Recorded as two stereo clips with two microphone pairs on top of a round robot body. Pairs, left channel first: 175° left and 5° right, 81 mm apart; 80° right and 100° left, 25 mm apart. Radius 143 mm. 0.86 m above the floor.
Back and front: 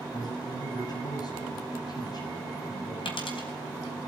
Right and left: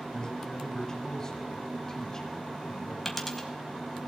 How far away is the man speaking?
About 6.5 m.